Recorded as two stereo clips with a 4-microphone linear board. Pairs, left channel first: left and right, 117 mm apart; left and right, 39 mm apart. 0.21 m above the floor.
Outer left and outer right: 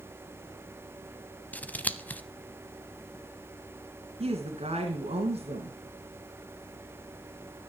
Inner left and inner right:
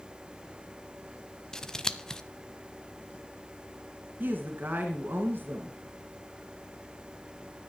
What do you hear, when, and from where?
1.5 s scissors: 15° left (ahead or behind), 0.7 m
4.2 s a woman speaking: 60° right (ahead or behind), 2 m